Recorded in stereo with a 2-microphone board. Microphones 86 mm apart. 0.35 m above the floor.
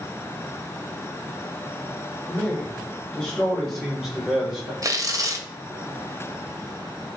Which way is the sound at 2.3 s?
15° left (ahead or behind).